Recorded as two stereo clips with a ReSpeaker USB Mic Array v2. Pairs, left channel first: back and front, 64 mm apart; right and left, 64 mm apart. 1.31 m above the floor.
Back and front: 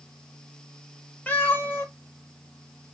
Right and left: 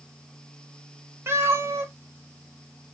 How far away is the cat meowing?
About 0.7 m.